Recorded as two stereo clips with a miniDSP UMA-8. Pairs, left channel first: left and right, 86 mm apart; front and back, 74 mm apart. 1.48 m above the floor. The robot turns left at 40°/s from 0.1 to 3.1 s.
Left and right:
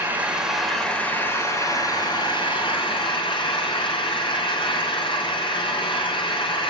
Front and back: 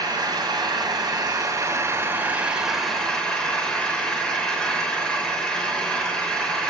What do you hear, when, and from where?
0.0 s an engine running: 160° right, 3 m; by 6.7 s 80° left, 3 m